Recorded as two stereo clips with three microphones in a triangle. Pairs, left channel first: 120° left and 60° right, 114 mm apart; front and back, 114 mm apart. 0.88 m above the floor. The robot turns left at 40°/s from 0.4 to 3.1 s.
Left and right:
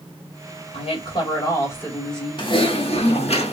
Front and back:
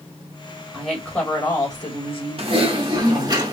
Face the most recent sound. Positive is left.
turn(degrees=130)